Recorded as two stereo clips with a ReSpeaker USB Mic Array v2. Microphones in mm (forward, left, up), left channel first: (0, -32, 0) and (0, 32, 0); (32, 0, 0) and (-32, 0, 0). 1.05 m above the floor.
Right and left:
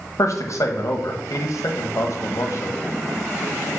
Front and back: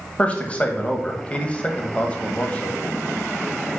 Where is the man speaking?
65° right, 1.1 m.